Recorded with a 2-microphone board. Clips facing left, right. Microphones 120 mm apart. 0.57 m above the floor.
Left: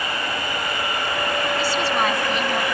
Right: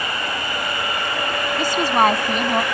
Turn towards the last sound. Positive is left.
turn(degrees=-40)  # may be behind; listen again after turning